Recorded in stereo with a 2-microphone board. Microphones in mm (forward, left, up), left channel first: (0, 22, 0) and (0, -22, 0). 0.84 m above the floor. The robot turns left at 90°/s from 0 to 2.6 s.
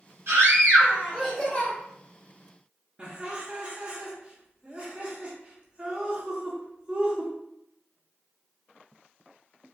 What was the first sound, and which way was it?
A scream, 95° right.